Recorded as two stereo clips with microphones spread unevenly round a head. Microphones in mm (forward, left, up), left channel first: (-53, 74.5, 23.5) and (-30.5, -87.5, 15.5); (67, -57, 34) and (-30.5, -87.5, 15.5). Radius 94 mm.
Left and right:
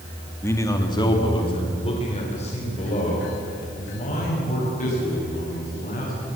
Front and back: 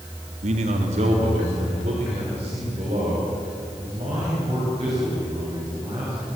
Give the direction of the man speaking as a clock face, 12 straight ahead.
6 o'clock.